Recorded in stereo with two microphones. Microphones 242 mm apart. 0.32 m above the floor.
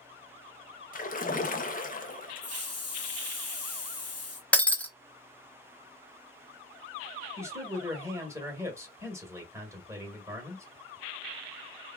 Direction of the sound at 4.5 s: 5° left (ahead or behind).